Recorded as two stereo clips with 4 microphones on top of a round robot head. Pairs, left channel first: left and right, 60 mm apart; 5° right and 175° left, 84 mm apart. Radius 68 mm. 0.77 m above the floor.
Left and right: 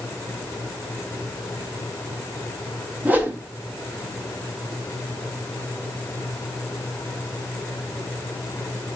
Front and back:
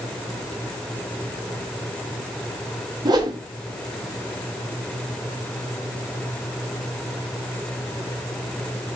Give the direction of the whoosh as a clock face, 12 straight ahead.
5 o'clock.